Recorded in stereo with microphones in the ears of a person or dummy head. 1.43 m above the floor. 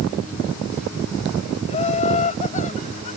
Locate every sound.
1.7 s laughter: 35° left (ahead or behind)